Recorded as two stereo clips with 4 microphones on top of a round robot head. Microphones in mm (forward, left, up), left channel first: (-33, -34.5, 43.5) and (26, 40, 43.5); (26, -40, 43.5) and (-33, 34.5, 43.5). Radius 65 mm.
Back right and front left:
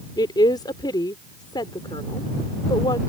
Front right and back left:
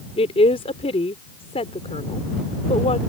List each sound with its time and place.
0.2 s a woman speaking: 80° right